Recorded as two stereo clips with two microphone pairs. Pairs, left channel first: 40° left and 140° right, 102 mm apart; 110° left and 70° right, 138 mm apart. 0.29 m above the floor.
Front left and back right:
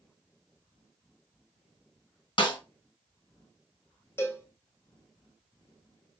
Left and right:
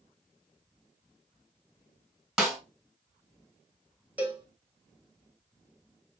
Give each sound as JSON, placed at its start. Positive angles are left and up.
{"t": 2.4, "sound": "a snare drum", "azimuth_deg": 15, "distance_m": 1.6}
{"t": 4.2, "sound": "a cowbell", "azimuth_deg": 0, "distance_m": 1.0}